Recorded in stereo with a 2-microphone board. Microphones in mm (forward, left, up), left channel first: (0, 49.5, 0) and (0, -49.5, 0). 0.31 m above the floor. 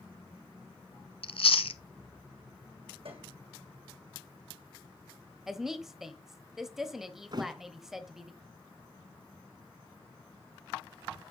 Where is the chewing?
65° left (ahead or behind), 0.7 m.